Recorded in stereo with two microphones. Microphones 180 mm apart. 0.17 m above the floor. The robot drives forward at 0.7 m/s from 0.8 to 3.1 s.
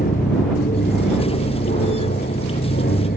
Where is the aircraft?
55° left (ahead or behind); by 3.2 s 60° left (ahead or behind).